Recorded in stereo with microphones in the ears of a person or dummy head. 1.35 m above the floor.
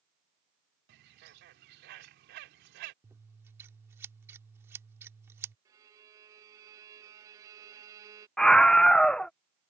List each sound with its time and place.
0.9 s a bird: 60° right (ahead or behind)
3.0 s scissors: 15° right (ahead or behind)
5.7 s a violin: 20° right (ahead or behind)
8.4 s a scream: centre (ahead or behind)